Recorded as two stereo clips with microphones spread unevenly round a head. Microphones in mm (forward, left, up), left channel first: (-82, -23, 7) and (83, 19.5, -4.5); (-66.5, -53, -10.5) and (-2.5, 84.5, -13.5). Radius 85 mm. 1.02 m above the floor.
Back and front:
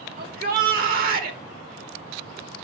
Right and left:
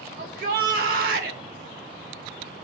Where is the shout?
35° left, 1.4 m.